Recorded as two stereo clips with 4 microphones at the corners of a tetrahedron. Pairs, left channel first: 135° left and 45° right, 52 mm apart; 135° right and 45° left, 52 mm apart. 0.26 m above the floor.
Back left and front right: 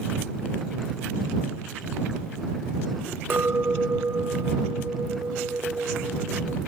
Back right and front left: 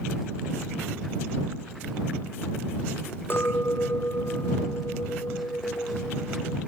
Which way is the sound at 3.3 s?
90° right.